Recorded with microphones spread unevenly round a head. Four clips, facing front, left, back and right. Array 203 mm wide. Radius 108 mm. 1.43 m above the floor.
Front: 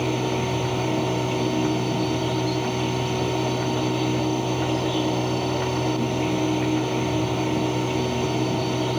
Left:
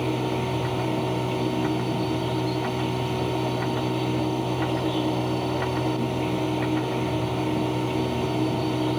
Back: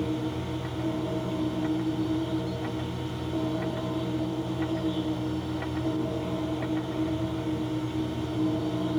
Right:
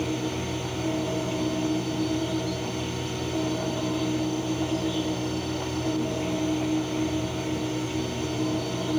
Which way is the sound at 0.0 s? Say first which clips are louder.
Left 3 dB, front 6 dB; 15° left.